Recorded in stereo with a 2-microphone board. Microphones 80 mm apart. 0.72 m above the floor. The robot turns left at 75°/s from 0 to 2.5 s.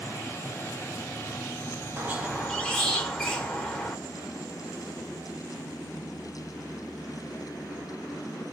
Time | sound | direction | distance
2.0 | a squeak | 150° right | 0.7 m